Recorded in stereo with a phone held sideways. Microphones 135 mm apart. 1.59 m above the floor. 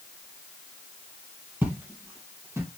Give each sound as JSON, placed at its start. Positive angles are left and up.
{"t": 1.6, "sound": "footsteps", "side_deg": -15, "distance_m": 3.0}